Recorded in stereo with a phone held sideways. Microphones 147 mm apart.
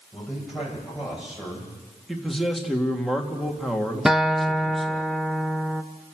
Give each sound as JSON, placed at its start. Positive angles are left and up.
{"t": 0.1, "sound": "a man speaking", "side_deg": 0, "distance_m": 8.5}
{"t": 2.1, "sound": "a man speaking", "side_deg": 0, "distance_m": 2.5}
{"t": 4.0, "sound": "a guitar", "side_deg": -5, "distance_m": 0.8}